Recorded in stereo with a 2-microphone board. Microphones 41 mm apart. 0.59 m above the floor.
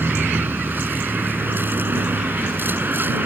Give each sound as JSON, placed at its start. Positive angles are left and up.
{"t": 0.0, "sound": "a vehicle", "side_deg": -55}